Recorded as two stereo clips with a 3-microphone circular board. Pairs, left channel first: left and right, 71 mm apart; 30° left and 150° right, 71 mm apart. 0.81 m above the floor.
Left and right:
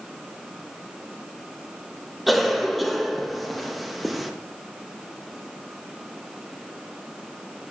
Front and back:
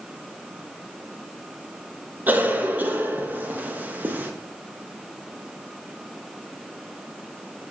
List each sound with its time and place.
2.3 s a cough: straight behind, 0.8 m